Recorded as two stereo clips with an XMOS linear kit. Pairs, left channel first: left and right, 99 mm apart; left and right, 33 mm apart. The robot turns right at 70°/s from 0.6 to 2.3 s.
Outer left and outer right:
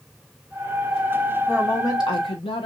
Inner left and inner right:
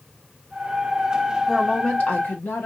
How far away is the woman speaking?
About 0.9 m.